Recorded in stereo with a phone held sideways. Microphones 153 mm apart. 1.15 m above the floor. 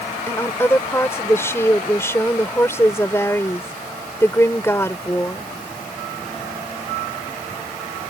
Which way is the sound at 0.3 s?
15° left (ahead or behind).